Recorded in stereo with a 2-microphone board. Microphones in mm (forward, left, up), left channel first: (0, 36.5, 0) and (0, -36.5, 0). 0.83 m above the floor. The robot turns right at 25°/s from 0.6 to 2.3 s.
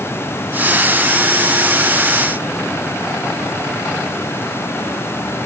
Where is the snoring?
No snoring in this recording.